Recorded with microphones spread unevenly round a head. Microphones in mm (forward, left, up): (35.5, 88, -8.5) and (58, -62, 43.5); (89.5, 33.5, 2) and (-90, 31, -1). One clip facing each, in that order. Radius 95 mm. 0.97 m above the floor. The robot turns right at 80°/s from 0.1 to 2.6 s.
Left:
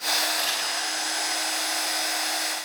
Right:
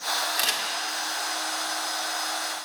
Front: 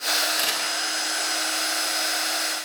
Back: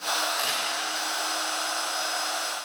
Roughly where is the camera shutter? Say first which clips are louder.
Even, front 1 dB; right.